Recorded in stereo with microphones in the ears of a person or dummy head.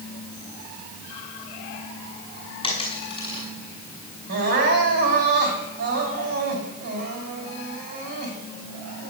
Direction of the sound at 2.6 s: 30° left (ahead or behind).